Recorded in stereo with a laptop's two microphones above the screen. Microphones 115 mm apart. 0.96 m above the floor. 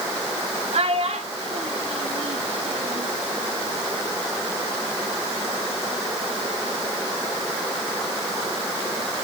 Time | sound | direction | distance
0.7 | a child speaking | 65° right (ahead or behind) | 1.6 m